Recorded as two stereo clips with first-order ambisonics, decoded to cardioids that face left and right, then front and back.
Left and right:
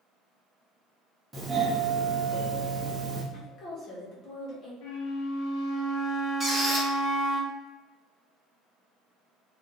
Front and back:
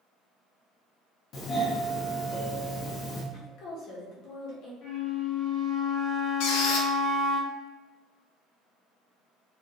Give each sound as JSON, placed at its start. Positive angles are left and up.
{"t": 1.3, "sound": "a doorbell", "azimuth_deg": -20, "distance_m": 1.0}
{"t": 3.3, "sound": "a woman speaking", "azimuth_deg": 35, "distance_m": 1.7}
{"t": 4.8, "sound": "a flute", "azimuth_deg": 60, "distance_m": 1.5}
{"t": 6.4, "sound": "a squeak", "azimuth_deg": 5, "distance_m": 0.9}